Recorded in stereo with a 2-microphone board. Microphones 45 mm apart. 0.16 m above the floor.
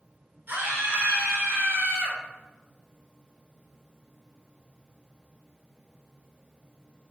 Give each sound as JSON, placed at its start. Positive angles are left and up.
{"t": 0.5, "sound": "a scream", "side_deg": -45, "distance_m": 3.0}